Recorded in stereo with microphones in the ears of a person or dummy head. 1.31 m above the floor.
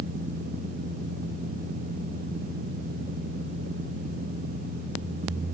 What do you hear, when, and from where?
Only background noise.